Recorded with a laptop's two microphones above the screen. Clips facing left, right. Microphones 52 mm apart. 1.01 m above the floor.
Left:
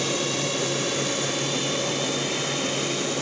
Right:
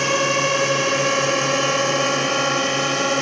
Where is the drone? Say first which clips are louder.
Right 8 dB; 50° right (ahead or behind); by 3.2 s 55° right (ahead or behind).